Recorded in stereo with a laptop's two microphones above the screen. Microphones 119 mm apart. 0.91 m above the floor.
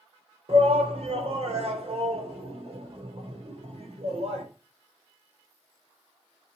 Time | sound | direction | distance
0.5 | a shout | 55° right (ahead or behind) | 3 m